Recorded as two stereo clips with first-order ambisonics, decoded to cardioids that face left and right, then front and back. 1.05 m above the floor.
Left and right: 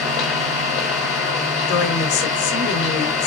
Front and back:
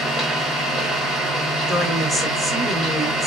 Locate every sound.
0.0 s an engine running: 115° left, 6 m
1.7 s a woman speaking: 100° left, 2.5 m